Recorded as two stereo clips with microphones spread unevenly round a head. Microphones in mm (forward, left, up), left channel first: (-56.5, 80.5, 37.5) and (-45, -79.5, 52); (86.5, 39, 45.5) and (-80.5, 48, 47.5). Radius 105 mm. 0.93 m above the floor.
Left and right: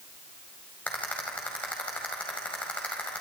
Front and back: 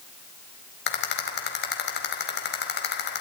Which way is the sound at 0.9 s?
10° left.